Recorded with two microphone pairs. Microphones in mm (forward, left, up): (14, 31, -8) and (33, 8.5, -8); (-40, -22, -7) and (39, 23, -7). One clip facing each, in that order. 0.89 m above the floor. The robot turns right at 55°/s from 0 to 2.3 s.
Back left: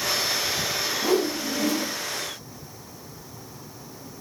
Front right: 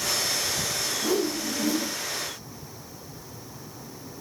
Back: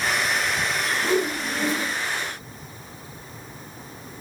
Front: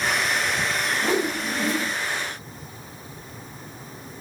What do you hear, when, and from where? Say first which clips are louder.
1.0 s a whoosh: back left 3 dB, back 1 dB; 95° left, 1.0 m; by 1.9 s 145° left, 1.0 m